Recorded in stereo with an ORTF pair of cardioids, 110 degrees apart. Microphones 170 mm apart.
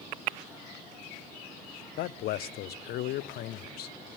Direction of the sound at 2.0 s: 65° left.